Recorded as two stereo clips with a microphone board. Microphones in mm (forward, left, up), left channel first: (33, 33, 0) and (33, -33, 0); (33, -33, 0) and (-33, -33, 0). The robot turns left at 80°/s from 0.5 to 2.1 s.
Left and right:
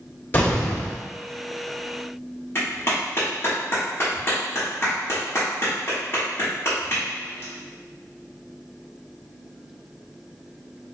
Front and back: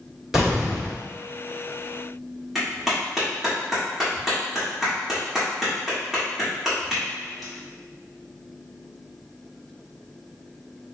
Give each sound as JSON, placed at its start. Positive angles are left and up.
{"t": 0.3, "sound": "an explosion", "azimuth_deg": 100, "distance_m": 1.3}
{"t": 2.5, "sound": "a clap", "azimuth_deg": 100, "distance_m": 1.3}